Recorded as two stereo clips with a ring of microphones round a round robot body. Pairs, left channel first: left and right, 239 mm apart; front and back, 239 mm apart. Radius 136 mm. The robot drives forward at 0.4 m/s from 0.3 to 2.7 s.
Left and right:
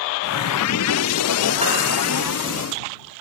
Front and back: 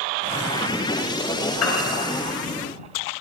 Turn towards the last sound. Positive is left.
turn(degrees=-20)